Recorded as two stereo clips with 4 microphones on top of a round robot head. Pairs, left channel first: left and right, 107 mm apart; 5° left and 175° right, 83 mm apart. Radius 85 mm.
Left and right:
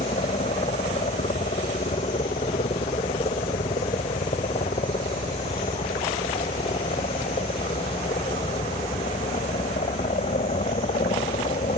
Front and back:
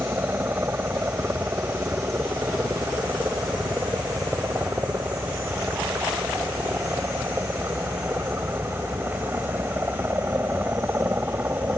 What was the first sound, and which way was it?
A helicopter, 120° left.